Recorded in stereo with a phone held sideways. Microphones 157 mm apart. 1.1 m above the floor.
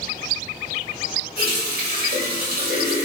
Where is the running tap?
80° right, 1.4 m.